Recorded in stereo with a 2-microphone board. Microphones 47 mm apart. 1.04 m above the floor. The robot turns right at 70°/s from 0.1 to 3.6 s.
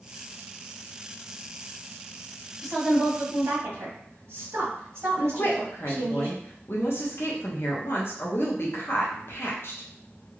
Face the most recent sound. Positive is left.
turn(degrees=55)  # may be behind; listen again after turning